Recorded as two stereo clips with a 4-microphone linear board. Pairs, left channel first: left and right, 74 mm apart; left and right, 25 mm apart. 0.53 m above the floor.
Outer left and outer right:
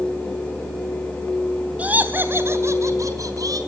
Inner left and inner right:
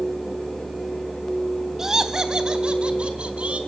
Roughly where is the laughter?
Centre.